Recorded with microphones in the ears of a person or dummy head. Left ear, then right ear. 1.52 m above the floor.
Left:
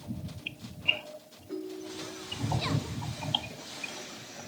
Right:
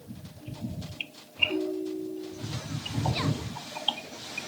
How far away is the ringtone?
About 2.0 m.